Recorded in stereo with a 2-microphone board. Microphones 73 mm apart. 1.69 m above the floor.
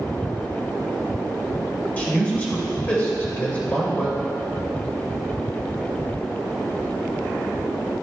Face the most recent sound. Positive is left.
turn(degrees=25)  # may be behind; listen again after turning